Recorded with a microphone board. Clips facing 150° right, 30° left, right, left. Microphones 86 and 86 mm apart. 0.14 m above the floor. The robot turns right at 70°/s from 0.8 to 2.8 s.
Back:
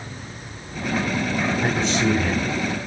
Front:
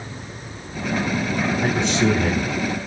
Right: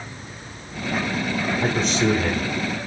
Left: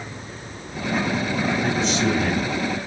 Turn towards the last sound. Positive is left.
turn(degrees=25)